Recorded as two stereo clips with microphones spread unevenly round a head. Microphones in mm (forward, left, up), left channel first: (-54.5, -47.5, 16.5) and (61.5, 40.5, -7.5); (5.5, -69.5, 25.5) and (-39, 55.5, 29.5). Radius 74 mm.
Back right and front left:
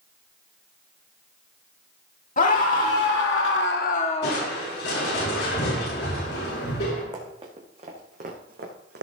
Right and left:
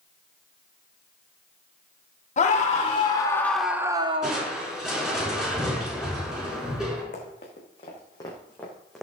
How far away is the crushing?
About 5.5 m.